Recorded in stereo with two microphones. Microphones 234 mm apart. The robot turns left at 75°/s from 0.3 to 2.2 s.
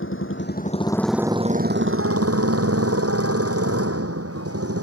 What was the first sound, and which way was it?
A motorcycle, 60° left.